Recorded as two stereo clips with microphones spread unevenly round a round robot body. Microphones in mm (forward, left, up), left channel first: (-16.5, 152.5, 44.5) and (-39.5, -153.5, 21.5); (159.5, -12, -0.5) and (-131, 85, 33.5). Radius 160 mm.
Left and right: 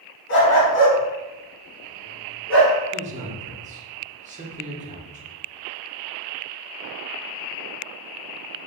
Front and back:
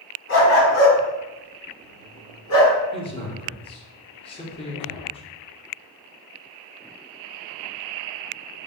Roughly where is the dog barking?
Ahead left.